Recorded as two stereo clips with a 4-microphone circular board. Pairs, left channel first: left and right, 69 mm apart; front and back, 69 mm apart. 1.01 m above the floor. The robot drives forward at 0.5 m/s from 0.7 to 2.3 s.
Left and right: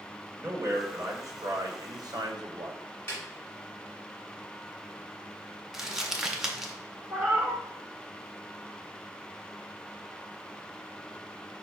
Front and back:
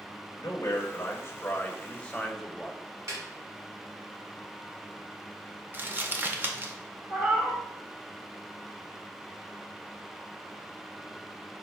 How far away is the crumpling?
About 0.6 m.